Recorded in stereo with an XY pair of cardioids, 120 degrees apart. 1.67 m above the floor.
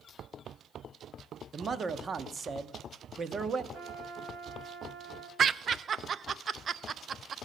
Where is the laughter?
35° right, 0.5 m.